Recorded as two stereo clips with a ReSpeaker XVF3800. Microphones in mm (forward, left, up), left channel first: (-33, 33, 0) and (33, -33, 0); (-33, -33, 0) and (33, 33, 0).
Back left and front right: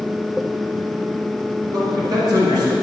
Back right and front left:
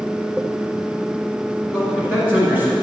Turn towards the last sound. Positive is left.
turn(degrees=-20)